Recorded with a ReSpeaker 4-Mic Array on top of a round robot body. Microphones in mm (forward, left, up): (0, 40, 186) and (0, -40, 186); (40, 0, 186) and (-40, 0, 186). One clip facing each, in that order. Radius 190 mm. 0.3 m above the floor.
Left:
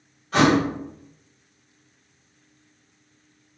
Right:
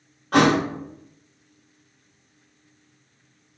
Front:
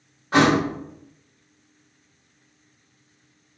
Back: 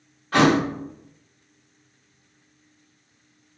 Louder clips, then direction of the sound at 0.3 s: Even, even; 65° right.